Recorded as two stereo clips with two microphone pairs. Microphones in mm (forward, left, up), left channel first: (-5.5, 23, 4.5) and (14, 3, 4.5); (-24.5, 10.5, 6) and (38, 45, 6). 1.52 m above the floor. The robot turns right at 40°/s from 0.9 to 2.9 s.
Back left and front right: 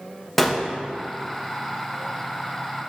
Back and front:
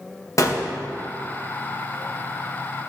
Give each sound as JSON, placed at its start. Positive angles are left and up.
{"t": 0.4, "sound": "a gunshot", "azimuth_deg": -145, "distance_m": 0.9}